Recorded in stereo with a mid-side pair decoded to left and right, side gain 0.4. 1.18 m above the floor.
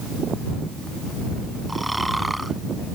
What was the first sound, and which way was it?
Snoring, 10° right.